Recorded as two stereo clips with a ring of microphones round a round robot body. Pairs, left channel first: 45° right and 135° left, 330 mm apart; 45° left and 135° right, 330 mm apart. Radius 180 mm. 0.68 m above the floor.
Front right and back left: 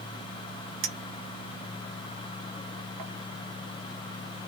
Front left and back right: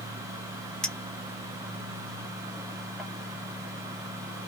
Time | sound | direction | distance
0.8 | a clink | 135° left | 1.1 m